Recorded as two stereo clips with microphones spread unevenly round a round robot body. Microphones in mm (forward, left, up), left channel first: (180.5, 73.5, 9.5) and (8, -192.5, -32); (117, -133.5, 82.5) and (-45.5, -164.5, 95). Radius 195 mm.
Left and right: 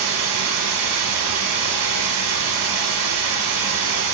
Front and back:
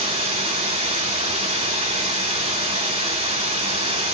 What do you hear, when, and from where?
0.0 s running water: 110° right, 1.5 m